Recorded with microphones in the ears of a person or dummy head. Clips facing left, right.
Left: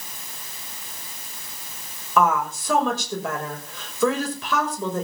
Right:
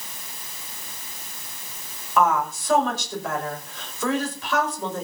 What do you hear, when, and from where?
2.2 s a woman speaking: 70° left (ahead or behind), 8 m